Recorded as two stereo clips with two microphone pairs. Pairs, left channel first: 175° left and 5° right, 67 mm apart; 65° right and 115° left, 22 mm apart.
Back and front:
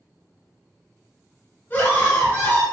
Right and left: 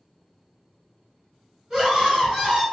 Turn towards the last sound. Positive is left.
turn(degrees=140)